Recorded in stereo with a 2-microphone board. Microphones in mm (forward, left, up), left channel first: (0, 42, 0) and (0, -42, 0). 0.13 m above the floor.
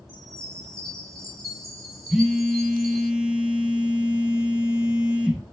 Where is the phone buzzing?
10° right (ahead or behind), 0.6 m.